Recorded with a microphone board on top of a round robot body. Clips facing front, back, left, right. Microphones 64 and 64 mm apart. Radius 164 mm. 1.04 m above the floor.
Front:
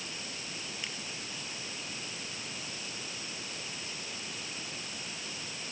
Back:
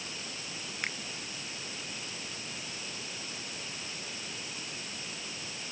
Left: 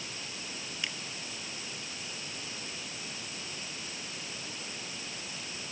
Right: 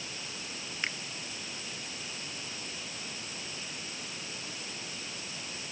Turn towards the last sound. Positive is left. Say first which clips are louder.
# back 9 dB, right 4 dB
turn(degrees=-140)